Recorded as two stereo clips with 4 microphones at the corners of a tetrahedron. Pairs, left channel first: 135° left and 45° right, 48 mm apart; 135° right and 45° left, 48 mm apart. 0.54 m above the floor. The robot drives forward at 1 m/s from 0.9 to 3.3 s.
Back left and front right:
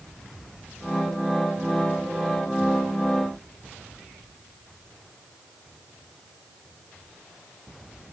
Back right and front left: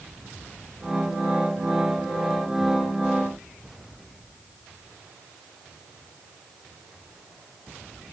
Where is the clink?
No clink in this recording.